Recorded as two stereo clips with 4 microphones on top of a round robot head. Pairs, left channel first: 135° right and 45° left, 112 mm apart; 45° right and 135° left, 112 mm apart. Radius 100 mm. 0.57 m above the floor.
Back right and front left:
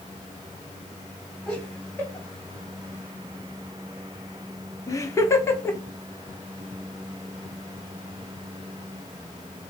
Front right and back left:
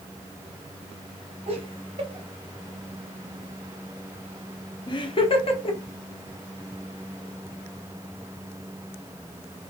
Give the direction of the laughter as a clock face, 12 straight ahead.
7 o'clock.